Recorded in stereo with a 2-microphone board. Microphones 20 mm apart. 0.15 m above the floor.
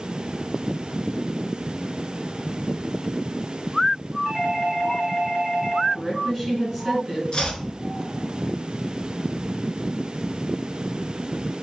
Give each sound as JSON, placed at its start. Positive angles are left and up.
{"t": 4.2, "sound": "a doorbell", "side_deg": 15, "distance_m": 2.0}
{"t": 5.9, "sound": "a woman speaking", "side_deg": 10, "distance_m": 1.3}
{"t": 7.3, "sound": "chopping", "side_deg": 50, "distance_m": 0.7}